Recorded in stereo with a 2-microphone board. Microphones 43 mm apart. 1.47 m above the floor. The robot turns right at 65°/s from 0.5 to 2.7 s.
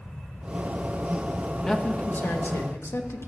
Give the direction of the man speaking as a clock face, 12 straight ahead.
12 o'clock.